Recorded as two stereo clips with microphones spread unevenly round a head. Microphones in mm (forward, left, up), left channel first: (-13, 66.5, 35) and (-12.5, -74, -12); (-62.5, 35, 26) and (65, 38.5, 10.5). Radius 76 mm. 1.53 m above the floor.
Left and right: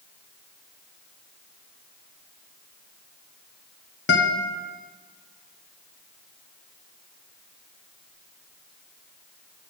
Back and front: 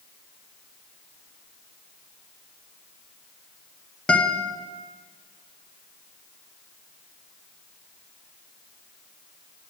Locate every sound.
4.1 s a guitar: 100° left, 0.8 m